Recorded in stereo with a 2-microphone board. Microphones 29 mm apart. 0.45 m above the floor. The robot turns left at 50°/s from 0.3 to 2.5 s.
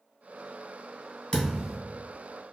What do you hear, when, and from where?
1.3 s a thud: 30° left, 1.0 m; by 1.9 s straight ahead, 1.0 m